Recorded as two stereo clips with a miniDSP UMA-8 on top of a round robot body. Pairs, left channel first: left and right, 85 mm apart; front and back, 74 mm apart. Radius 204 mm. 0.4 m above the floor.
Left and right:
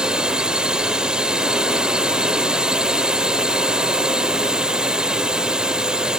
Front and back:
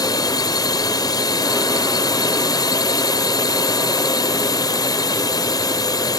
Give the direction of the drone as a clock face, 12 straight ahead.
12 o'clock.